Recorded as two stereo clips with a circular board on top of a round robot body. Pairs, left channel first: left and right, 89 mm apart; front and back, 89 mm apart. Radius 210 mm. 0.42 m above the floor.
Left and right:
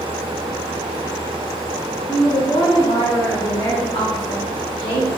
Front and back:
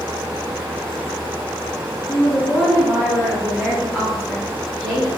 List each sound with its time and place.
2.1 s a woman speaking: 75° left, 1.8 m; by 5.1 s 85° left, 4 m